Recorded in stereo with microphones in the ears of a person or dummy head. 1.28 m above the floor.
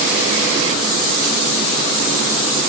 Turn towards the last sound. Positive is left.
No sound to turn to.